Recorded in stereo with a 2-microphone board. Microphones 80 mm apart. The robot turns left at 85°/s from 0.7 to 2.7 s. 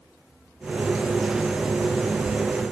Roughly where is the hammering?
No hammering in this recording.